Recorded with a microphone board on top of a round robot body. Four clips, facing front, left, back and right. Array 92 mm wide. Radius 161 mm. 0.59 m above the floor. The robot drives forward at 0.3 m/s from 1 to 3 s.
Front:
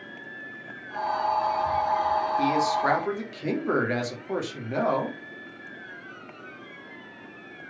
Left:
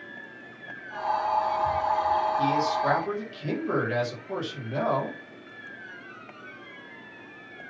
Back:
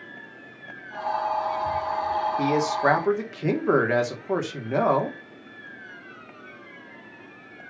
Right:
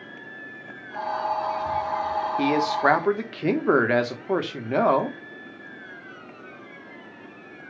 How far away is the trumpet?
I don't hear a trumpet.